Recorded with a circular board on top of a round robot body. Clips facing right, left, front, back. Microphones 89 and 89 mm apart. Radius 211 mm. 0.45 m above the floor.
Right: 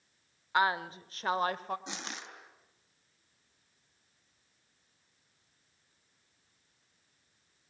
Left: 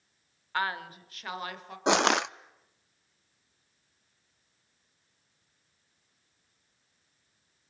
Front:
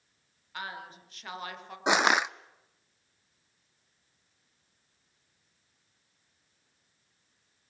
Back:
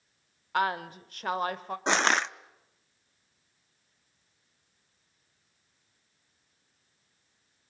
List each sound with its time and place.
0.5 s a woman speaking: 160° right, 1.8 m; by 1.8 s 135° right, 2.5 m
1.9 s crushing: 80° left, 0.6 m